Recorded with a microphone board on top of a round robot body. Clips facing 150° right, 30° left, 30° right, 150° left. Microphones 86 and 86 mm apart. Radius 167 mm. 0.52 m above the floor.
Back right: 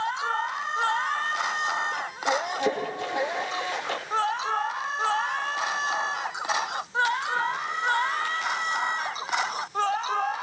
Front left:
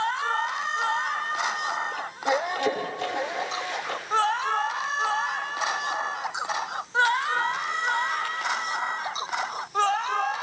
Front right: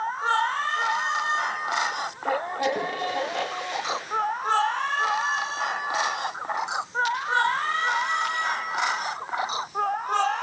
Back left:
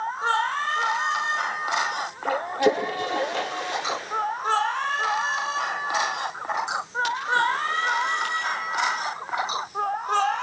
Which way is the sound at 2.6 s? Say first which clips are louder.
Even, back left 8 dB; 135° left.